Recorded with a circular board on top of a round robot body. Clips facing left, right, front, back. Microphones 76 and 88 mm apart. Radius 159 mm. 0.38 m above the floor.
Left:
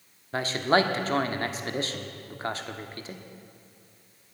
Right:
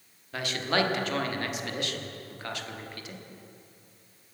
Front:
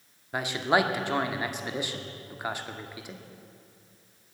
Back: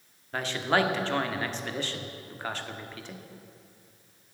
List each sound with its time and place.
0.3 s a man speaking: 70° left, 1.7 m